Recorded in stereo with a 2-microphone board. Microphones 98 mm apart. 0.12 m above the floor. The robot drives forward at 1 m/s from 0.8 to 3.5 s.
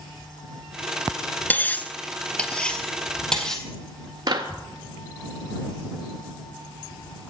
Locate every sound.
1.5 s cutlery clinking: 20° left (ahead or behind), 0.7 m; by 3.6 s 5° left (ahead or behind), 2 m
4.3 s a clap: 45° right (ahead or behind), 1.9 m